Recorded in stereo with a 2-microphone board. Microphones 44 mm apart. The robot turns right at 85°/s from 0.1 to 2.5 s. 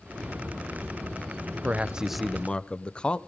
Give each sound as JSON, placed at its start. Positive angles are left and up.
{"t": 1.6, "sound": "a man speaking", "azimuth_deg": -50, "distance_m": 0.9}